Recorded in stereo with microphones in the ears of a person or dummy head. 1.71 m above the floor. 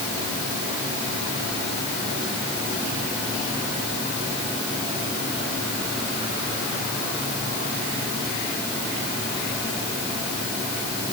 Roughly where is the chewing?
No chewing in this recording.